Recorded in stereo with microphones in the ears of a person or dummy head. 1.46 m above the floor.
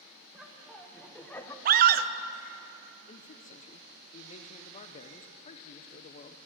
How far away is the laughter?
About 1.3 m.